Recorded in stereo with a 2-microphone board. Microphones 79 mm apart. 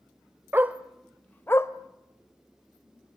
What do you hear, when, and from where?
0.5 s a dog barking: 25° right (ahead or behind), 1.1 m; by 1.7 s 35° left (ahead or behind), 1.3 m